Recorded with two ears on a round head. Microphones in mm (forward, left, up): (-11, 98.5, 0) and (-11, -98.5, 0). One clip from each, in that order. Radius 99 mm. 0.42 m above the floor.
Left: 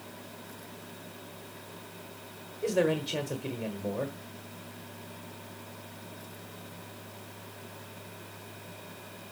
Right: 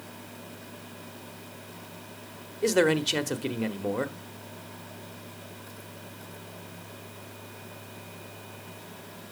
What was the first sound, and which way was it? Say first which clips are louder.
A man speaking: right 5 dB; 45° right (ahead or behind).